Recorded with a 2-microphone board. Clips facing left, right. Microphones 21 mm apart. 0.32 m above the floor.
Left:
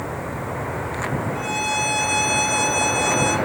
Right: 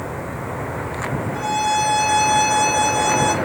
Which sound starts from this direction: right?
A violin, at 1.3 s.